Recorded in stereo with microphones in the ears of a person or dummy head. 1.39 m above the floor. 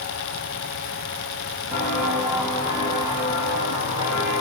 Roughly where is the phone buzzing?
I don't hear a phone buzzing.